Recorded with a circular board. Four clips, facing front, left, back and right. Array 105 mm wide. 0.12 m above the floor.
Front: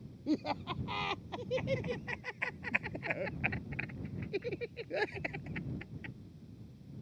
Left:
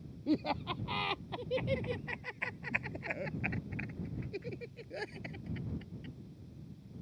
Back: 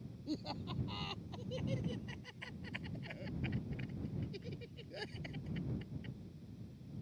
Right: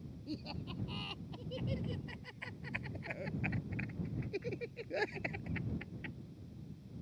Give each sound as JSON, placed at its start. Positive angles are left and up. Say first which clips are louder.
{"t": 0.3, "sound": "laughter", "louder": "left 12 dB, front 9 dB", "azimuth_deg": 50}